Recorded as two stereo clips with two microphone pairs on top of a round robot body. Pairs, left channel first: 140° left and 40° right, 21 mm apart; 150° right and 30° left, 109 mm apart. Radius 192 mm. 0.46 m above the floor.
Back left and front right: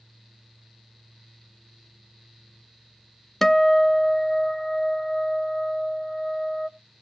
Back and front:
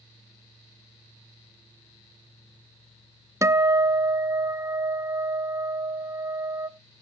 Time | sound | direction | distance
3.4 | a guitar | 70° left | 0.8 m